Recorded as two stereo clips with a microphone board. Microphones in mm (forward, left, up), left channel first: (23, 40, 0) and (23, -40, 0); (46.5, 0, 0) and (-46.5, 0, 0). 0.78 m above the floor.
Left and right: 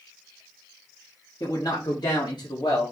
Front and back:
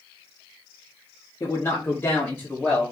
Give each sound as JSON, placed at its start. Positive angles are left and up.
{"t": 1.4, "sound": "a man speaking", "azimuth_deg": 55, "distance_m": 1.3}